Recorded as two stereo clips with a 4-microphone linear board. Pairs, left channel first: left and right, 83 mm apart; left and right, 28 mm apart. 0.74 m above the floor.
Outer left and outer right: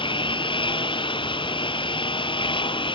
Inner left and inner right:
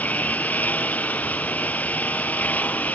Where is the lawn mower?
85° left; by 3.0 s 90° left.